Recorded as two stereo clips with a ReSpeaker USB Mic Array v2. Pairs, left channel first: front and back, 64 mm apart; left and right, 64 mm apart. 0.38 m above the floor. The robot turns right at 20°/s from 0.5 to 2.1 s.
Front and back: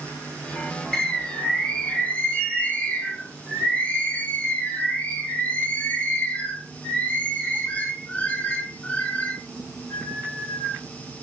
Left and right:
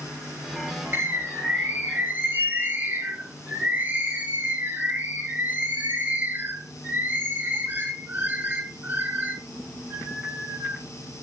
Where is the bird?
75° right, 1.4 m; by 10.8 s 50° right, 1.4 m.